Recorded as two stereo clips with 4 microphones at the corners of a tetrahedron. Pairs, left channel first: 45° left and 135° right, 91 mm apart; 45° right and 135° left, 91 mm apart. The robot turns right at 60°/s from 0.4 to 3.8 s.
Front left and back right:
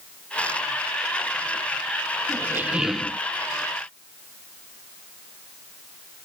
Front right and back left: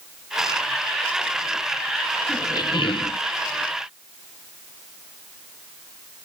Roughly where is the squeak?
Right.